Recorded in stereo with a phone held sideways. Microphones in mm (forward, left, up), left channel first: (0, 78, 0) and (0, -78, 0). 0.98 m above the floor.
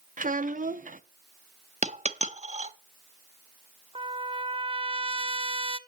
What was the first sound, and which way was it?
A child speaking, 60° right (ahead or behind).